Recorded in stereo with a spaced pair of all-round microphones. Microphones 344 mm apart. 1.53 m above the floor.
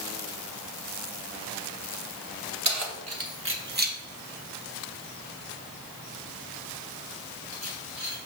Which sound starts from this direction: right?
Keys jangling, at 2.6 s.